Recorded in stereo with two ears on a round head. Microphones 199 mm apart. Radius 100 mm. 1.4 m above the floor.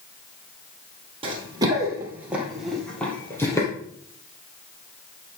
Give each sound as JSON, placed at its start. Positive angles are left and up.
{"t": 1.2, "sound": "running footsteps", "side_deg": -25, "distance_m": 2.5}